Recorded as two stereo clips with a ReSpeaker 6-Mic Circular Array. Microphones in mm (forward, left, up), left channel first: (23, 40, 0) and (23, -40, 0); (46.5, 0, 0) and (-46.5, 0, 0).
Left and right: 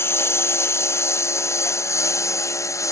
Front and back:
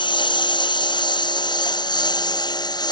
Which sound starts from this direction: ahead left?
A lawn mower, at 0.0 s.